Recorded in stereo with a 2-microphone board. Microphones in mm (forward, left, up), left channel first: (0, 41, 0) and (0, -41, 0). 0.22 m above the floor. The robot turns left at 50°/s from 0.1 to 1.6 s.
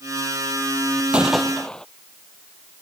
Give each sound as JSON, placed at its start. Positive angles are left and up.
{"t": 1.1, "sound": "a gunshot", "side_deg": -15}